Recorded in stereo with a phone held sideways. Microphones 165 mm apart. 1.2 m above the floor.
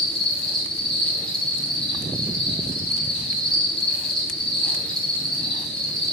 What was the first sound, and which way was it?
An insect, 5° left (ahead or behind).